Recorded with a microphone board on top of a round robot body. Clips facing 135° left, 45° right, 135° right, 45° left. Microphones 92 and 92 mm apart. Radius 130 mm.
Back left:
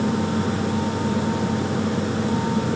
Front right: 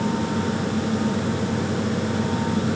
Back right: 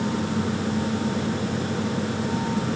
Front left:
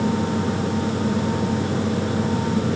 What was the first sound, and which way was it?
Only background noise.